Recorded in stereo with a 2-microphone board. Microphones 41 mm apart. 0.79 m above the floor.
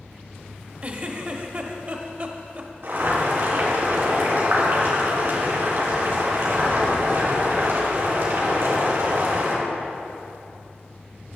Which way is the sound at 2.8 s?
65° right (ahead or behind).